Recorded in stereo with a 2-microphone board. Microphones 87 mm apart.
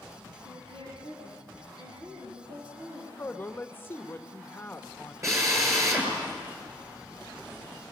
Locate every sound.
0.5 s a woman speaking: 80° right, 6.5 m; by 3.1 s 70° right (ahead or behind), 8 m
3.2 s a man speaking: 25° left (ahead or behind), 1.1 m
5.2 s a drill: 35° right (ahead or behind), 7 m